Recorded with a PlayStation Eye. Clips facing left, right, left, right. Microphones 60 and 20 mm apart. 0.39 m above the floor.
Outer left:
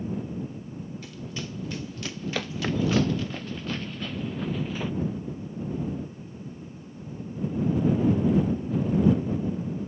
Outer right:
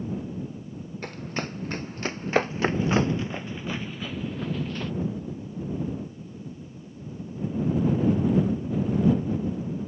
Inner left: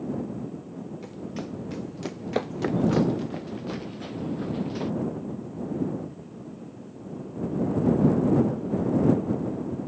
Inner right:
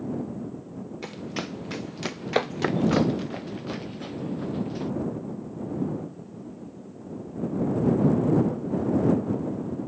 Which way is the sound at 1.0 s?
55° right (ahead or behind).